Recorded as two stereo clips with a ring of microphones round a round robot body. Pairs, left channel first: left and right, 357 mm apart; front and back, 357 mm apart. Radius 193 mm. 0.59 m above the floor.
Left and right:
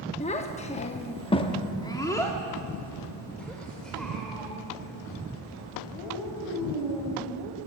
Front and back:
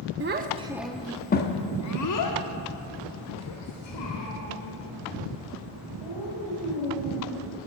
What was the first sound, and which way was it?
A child speaking, 150° left.